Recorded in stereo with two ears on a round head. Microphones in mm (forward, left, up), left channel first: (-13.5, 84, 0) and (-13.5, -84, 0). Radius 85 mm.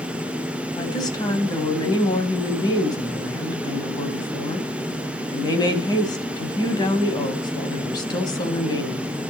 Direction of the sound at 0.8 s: 20° left (ahead or behind).